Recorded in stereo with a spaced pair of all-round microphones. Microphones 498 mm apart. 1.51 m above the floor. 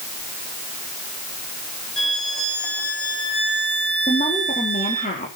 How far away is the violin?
About 3 m.